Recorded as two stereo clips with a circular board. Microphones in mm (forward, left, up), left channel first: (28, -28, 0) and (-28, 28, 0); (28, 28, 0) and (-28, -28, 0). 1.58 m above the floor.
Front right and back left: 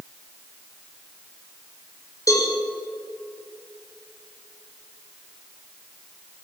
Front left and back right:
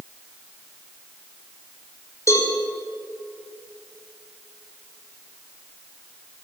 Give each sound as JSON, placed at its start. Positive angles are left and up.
{"t": 2.3, "sound": "a cowbell", "azimuth_deg": -5, "distance_m": 6.0}